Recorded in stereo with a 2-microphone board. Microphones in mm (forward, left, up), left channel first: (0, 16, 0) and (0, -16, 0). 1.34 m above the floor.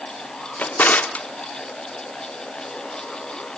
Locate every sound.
0.6 s a drawer: 60° left (ahead or behind), 1.4 m